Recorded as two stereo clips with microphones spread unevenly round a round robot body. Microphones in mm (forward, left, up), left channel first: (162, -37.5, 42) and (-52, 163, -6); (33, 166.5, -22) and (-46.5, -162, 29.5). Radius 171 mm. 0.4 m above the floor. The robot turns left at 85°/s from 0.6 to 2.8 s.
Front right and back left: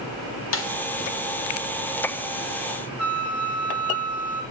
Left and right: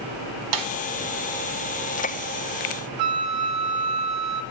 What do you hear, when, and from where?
0.5 s a snare drum: 90° right, 0.8 m; by 0.7 s 100° right, 0.8 m
3.0 s a flute: 130° right, 1.1 m